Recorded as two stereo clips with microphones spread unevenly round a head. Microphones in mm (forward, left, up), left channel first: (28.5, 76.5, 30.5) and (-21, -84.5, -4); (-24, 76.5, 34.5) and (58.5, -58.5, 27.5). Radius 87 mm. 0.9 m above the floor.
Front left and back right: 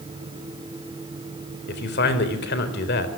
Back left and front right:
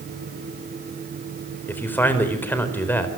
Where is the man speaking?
45° left, 4 m.